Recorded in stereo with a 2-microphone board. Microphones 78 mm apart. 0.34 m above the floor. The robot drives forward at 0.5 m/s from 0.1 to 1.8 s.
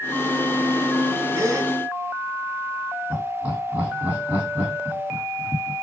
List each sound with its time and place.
1.4 s a gasp: 40° right (ahead or behind), 1.4 m; by 1.7 s 45° right (ahead or behind), 1.2 m
3.1 s laughter: 20° right (ahead or behind), 2.5 m